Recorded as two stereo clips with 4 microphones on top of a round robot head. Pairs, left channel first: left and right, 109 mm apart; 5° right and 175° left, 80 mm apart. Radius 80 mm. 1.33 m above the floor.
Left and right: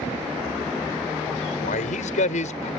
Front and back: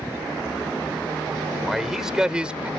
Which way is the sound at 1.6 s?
85° left.